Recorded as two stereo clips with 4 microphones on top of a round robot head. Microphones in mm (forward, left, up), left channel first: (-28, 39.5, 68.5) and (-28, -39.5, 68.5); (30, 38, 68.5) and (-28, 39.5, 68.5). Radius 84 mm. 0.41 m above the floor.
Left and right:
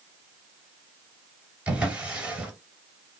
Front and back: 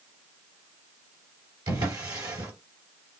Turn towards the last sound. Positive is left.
turn(degrees=-170)